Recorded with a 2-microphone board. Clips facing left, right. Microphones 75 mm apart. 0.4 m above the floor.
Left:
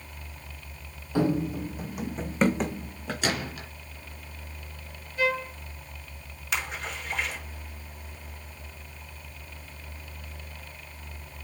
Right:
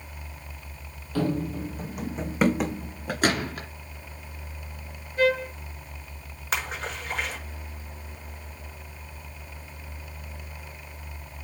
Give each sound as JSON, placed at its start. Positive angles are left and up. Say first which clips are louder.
{"t": 1.1, "sound": "running footsteps", "louder": "left 1 dB", "side_deg": 20, "distance_m": 1.0}
{"t": 3.2, "sound": "a gunshot", "louder": "right 6 dB", "side_deg": -45, "distance_m": 2.5}
{"t": 5.2, "sound": "a trumpet", "louder": "right 5 dB", "side_deg": -35, "distance_m": 5.0}
{"t": 6.5, "sound": "a splash", "louder": "right 2 dB", "side_deg": -40, "distance_m": 5.5}